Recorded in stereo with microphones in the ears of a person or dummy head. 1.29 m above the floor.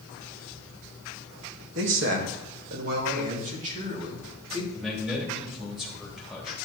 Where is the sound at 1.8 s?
75° right (ahead or behind), 1.6 m; by 4.6 s 35° right (ahead or behind), 3 m.